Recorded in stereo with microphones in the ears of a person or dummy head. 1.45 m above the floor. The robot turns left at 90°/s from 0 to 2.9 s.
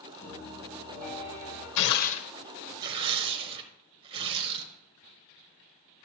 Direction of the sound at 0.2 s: 5° left.